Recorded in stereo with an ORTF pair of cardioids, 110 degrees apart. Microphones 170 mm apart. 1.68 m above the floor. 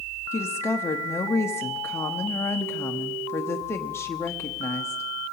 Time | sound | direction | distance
0.3 | a woman speaking | 15° left | 0.8 m